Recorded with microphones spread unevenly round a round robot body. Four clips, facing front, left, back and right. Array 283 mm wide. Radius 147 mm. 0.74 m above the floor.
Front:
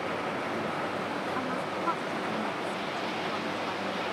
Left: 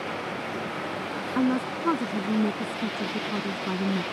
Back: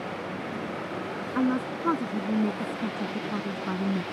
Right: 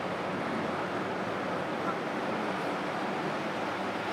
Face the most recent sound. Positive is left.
turn(degrees=130)